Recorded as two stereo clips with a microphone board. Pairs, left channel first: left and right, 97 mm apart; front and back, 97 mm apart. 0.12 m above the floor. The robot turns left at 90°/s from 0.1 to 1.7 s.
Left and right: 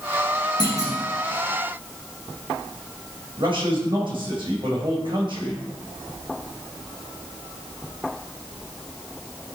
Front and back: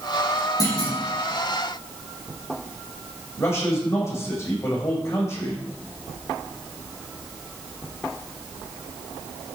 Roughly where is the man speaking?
Ahead right.